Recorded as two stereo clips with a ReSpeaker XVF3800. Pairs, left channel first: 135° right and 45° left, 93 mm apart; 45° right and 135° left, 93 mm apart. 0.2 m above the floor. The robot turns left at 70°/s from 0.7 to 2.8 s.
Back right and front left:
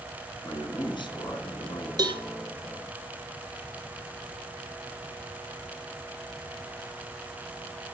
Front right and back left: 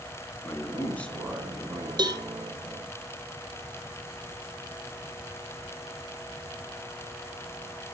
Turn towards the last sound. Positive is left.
turn(degrees=35)